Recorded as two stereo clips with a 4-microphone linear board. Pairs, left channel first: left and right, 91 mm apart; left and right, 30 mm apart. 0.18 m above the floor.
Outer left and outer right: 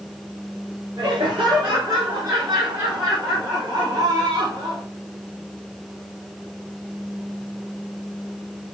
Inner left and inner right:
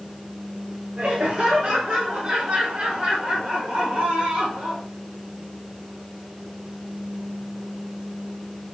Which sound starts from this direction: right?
Laughter, at 1.0 s.